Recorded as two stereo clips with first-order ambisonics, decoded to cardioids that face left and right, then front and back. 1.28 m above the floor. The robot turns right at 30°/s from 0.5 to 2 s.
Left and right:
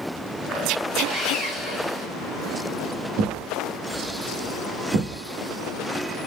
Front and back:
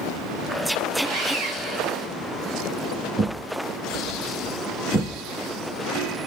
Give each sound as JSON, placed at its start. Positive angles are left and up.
{"t": 1.0, "sound": "sawing", "azimuth_deg": -165, "distance_m": 3.5}
{"t": 3.2, "sound": "a thud", "azimuth_deg": -100, "distance_m": 2.0}